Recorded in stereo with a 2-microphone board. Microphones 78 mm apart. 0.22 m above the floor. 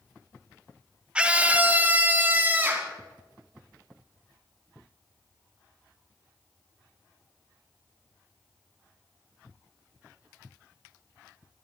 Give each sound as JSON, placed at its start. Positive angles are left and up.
{"t": 1.1, "sound": "a scream", "side_deg": -15, "distance_m": 1.1}